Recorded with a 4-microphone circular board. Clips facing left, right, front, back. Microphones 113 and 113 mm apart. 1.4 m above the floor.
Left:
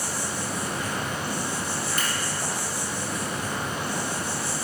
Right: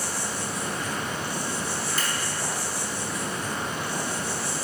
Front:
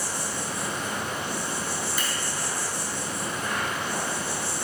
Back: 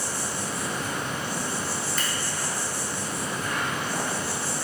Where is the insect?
65° left, 2 m.